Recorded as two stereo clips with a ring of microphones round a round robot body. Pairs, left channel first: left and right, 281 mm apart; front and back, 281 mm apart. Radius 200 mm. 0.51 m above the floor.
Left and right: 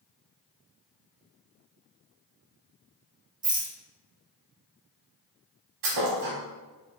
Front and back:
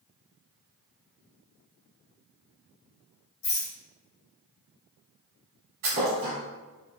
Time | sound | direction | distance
3.4 | a rattle | 40° right | 1.3 m
5.8 | a thud | 125° right | 0.8 m